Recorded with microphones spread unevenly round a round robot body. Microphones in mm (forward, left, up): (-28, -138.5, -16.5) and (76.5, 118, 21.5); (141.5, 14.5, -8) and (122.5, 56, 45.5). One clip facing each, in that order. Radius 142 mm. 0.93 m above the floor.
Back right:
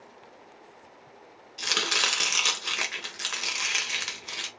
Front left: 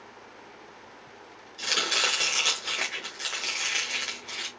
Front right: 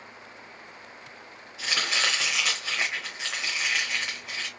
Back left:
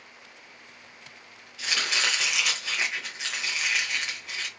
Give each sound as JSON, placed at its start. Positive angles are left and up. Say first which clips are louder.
{"t": 1.6, "sound": "chopping", "louder": "even, front right 1 dB", "azimuth_deg": 175, "distance_m": 1.0}